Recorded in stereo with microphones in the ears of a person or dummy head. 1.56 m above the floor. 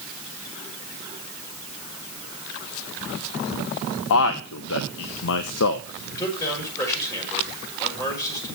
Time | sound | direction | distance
4.1 | a man speaking | 70° left (ahead or behind) | 0.7 m
6.0 | a man speaking | 15° left (ahead or behind) | 6.5 m